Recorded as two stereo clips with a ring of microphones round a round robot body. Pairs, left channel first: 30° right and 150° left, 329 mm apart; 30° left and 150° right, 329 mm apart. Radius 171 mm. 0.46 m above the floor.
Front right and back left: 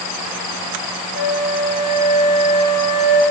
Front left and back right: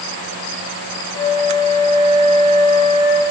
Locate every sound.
1.1 s a flute: 15° right, 2.5 m